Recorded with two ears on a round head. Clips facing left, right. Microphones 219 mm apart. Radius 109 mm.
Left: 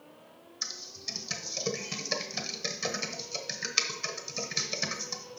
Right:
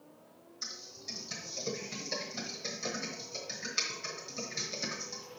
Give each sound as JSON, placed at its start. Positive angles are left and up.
{"t": 0.6, "sound": "typing on a keyboard", "side_deg": 70, "distance_m": 1.1}